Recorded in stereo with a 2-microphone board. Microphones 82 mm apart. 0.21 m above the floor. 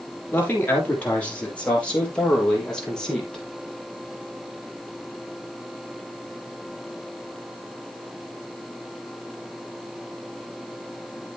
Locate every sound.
0.3 s a man speaking: 20° left (ahead or behind), 5.5 m; by 3.4 s 5° left (ahead or behind), 6 m